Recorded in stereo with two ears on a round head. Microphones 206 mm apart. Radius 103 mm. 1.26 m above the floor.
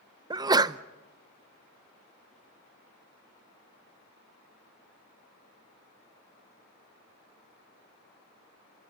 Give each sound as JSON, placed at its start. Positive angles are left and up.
{"t": 0.3, "sound": "a sneeze", "side_deg": -20, "distance_m": 0.5}